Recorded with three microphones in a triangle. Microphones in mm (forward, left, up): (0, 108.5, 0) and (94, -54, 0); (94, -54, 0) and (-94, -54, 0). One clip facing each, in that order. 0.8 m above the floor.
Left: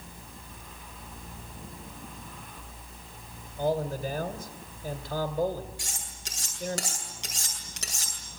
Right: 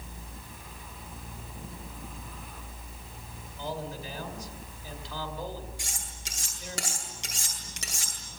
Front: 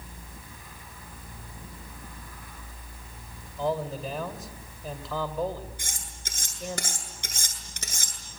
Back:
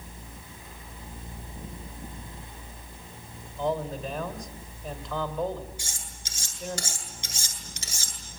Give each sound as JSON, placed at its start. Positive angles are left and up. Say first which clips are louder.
{"t": 3.6, "sound": "a man speaking", "louder": "left 9 dB, even", "azimuth_deg": 85, "distance_m": 2.5}
{"t": 5.8, "sound": "cutlery clinking", "louder": "left 1 dB, front 1 dB", "azimuth_deg": 30, "distance_m": 8.0}